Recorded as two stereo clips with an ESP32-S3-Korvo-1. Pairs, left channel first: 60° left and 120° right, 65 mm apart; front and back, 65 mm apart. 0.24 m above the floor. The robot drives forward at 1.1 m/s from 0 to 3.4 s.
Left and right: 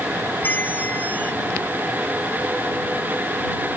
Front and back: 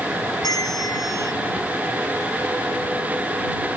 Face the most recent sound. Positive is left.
turn(degrees=180)